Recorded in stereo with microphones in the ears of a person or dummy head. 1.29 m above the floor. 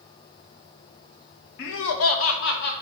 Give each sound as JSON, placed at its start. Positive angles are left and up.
{"t": 1.6, "sound": "laughter", "side_deg": 65, "distance_m": 1.3}